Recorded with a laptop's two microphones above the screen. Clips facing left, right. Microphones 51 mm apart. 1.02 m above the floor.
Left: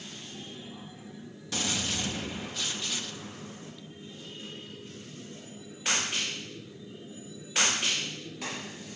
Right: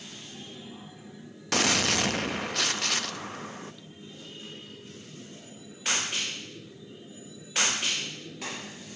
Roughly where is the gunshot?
Right.